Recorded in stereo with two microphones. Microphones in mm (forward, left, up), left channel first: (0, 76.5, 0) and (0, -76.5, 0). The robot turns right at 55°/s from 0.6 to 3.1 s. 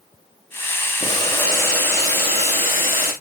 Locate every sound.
1.0 s boiling: 145° left, 5 m; by 3.1 s 95° right, 5 m